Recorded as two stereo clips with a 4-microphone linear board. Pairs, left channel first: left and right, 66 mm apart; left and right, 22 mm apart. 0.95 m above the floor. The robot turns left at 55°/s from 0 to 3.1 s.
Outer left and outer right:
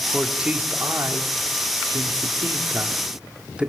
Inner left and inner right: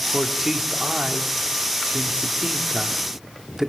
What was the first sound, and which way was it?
A man speaking, straight ahead.